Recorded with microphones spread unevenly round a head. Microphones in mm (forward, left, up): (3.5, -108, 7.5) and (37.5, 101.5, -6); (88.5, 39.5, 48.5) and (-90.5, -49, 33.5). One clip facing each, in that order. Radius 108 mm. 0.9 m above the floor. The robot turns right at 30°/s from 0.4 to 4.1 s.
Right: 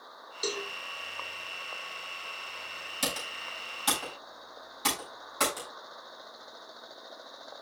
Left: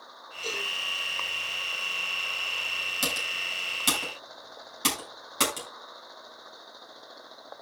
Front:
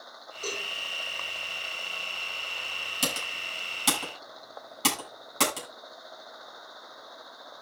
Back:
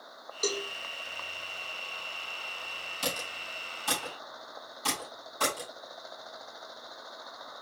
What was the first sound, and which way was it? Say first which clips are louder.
A cowbell: right 3 dB, back 5 dB; 110° right.